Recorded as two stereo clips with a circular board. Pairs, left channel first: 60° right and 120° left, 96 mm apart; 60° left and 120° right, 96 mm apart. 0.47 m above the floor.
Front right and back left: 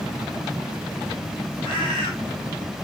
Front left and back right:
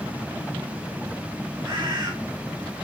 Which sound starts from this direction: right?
A bird, at 1.6 s.